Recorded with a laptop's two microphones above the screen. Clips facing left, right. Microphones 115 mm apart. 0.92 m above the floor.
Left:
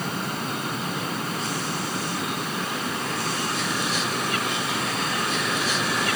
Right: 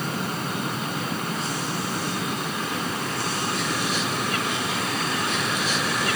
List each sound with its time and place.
Only background noise.